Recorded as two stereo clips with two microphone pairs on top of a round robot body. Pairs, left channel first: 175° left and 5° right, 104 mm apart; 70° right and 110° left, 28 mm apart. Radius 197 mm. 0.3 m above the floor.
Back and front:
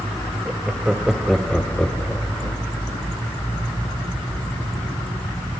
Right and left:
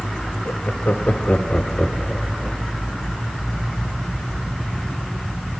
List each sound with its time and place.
0.5 s laughter: 85° right, 2 m; by 2.6 s 165° right, 1.3 m